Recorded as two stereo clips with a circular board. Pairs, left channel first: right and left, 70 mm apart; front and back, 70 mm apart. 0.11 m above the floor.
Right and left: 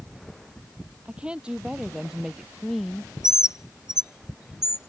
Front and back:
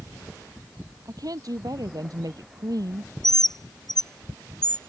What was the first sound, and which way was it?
A woman speaking, 160° left.